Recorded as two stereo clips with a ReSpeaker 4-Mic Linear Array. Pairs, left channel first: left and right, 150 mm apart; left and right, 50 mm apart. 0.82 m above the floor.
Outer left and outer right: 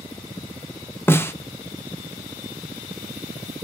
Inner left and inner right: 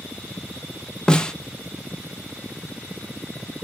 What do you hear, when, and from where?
1.1 s a snare drum: 15° left (ahead or behind), 0.5 m